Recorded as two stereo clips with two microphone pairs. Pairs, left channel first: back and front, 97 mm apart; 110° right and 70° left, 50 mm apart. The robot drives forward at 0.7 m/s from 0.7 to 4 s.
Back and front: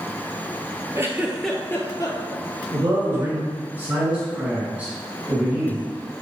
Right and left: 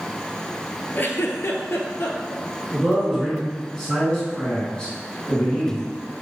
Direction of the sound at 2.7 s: 20° right.